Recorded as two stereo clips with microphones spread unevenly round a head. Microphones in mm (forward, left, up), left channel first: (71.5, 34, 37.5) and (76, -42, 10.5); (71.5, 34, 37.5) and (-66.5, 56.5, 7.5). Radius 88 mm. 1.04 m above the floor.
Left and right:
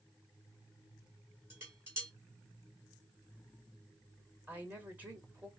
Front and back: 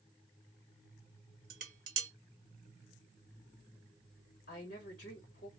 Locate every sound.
1.5 s dishes clattering: 155° right, 0.7 m
4.5 s a woman speaking: 25° right, 1.9 m